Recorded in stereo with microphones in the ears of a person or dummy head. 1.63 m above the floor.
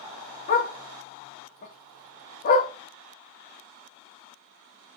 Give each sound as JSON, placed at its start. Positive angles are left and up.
{"t": 0.5, "sound": "a dog barking", "side_deg": 35, "distance_m": 1.3}